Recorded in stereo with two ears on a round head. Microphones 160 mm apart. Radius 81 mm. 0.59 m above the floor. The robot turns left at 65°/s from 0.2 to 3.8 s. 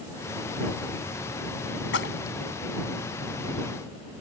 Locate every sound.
1.9 s a splash: 70° left (ahead or behind); by 2.4 s 45° left (ahead or behind)